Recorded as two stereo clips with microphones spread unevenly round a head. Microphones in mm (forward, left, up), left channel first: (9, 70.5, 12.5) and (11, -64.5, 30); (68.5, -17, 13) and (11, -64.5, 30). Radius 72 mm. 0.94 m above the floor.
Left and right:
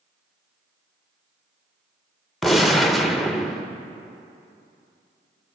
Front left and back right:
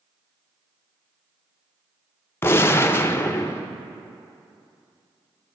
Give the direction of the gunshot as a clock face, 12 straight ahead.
12 o'clock.